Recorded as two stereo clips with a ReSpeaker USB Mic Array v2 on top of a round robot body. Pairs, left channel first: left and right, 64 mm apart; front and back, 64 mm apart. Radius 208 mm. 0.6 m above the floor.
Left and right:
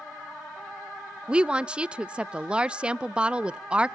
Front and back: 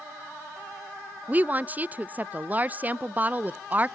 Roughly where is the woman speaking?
Behind right.